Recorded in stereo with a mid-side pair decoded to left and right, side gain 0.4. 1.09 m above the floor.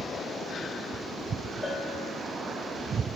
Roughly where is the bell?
Ahead.